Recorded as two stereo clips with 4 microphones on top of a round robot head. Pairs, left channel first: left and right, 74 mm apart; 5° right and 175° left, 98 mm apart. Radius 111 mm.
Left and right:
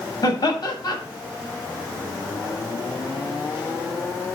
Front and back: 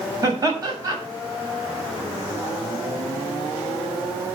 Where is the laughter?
125° left, 7 m.